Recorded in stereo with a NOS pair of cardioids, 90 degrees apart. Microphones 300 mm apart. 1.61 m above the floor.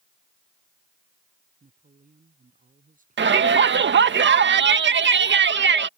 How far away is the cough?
No cough in this recording.